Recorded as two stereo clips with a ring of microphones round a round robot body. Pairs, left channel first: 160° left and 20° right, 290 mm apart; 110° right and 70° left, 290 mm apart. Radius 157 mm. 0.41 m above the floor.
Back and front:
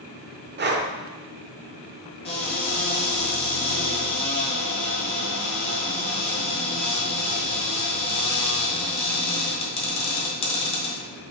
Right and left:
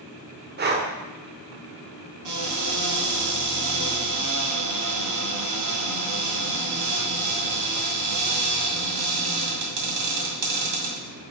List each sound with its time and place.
0.6 s breathing: 20° left, 1.1 m
2.2 s a cupboard door: 90° left, 2 m